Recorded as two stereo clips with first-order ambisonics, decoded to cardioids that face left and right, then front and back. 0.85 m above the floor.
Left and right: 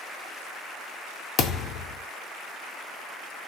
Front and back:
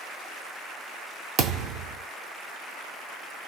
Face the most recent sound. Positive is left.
turn(degrees=135)